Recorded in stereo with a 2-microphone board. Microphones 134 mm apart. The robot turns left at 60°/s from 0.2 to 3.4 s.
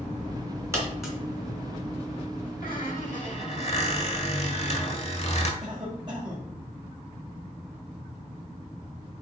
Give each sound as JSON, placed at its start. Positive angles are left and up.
{"t": 0.7, "sound": "a dropped coin", "side_deg": -20, "distance_m": 2.5}
{"t": 2.6, "sound": "a squeak", "azimuth_deg": 100, "distance_m": 1.4}
{"t": 5.6, "sound": "a cough", "side_deg": -35, "distance_m": 4.0}